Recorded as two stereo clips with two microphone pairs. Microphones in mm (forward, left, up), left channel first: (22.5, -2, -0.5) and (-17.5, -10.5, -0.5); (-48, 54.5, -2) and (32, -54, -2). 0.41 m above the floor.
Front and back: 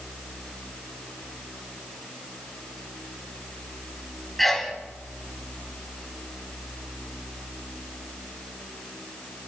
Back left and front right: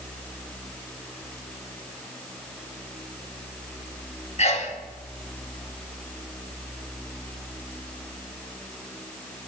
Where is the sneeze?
100° left, 3.5 m.